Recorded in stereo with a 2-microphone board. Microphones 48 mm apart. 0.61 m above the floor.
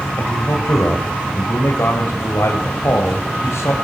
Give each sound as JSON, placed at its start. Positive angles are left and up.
{"t": 0.2, "sound": "a man speaking", "side_deg": 75, "distance_m": 2.5}